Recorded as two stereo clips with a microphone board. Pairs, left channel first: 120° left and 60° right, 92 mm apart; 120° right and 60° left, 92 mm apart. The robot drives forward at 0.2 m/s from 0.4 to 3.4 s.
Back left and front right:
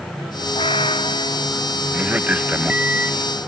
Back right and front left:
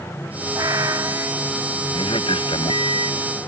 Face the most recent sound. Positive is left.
turn(degrees=-135)